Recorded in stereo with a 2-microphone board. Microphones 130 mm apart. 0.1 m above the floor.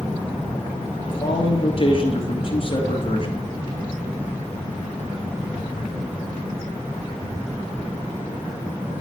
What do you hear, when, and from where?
1.1 s a man speaking: 45° left (ahead or behind), 2 m